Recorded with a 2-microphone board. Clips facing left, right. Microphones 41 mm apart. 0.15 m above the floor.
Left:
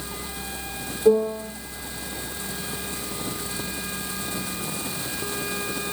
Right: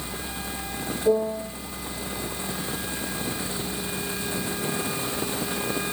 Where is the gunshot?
No gunshot in this recording.